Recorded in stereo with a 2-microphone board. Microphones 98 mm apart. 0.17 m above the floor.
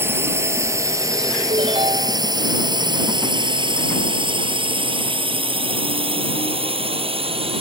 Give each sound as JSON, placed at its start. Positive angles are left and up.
{"t": 0.0, "sound": "a drone", "side_deg": -25}
{"t": 1.5, "sound": "a ringtone", "side_deg": -60}